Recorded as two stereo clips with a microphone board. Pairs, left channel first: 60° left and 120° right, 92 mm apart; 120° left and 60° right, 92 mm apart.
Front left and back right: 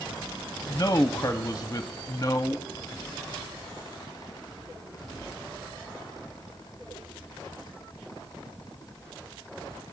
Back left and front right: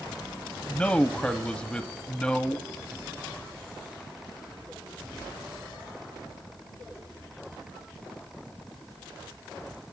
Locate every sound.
0.7 s a man speaking: 50° left, 0.7 m